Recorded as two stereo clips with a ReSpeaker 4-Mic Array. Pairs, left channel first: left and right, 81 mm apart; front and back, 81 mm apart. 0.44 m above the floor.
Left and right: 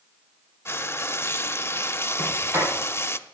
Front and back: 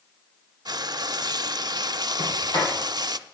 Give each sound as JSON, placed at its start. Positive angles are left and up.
{"t": 0.7, "sound": "frying", "azimuth_deg": 150, "distance_m": 0.5}
{"t": 2.2, "sound": "a sliding door", "azimuth_deg": -25, "distance_m": 6.5}